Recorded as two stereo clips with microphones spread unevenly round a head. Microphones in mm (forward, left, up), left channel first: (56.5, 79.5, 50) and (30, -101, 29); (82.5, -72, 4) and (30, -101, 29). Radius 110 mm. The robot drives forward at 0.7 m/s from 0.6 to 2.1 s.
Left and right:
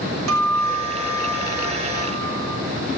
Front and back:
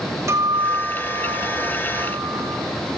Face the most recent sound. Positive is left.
turn(degrees=-125)